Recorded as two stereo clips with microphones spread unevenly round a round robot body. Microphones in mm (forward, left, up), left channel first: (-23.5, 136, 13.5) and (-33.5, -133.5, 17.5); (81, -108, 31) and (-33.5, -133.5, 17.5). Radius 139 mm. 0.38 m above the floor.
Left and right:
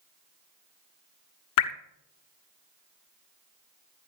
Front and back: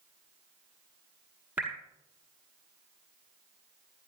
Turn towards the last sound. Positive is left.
turn(degrees=105)